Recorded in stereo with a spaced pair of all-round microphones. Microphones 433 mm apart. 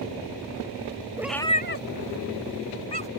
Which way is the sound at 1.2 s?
10° right (ahead or behind).